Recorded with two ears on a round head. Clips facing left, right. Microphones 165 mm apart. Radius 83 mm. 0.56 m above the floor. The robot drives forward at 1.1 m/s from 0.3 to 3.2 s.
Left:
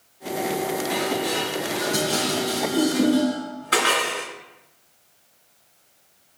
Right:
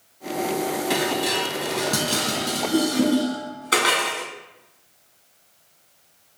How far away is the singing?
No singing in this recording.